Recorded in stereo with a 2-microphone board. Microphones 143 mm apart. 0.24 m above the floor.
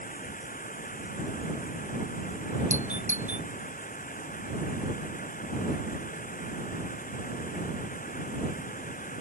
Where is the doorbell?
55° right (ahead or behind).